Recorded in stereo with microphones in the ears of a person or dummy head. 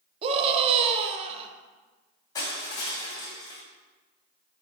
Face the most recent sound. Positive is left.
turn(degrees=20)  # may be behind; listen again after turning